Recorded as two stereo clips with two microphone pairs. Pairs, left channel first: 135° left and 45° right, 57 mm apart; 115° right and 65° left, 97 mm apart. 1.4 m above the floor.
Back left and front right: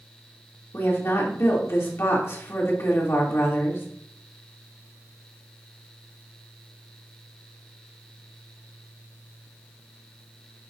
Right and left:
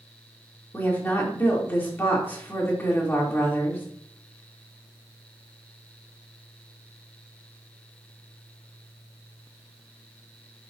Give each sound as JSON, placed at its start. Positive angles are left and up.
{"t": 0.7, "sound": "a woman speaking", "azimuth_deg": 175, "distance_m": 3.0}